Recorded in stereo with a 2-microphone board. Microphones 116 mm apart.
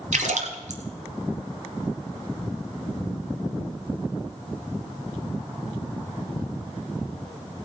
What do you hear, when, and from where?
0.1 s a splash: 85° right, 1.5 m